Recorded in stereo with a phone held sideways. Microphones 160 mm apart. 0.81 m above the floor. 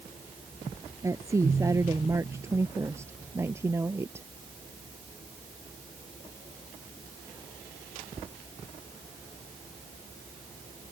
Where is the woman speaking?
20° right (ahead or behind); by 4.3 s 15° right (ahead or behind).